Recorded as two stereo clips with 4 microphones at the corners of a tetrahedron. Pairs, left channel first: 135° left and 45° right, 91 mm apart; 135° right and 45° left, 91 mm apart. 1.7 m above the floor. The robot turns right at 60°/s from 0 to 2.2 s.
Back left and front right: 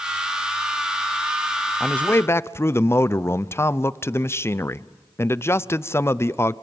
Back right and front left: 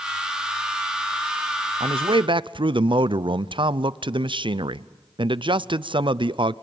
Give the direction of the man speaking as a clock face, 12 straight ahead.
10 o'clock.